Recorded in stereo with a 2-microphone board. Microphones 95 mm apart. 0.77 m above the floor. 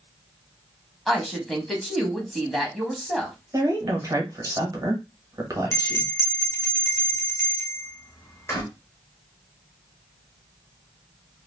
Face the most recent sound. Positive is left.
turn(degrees=30)  # may be behind; listen again after turning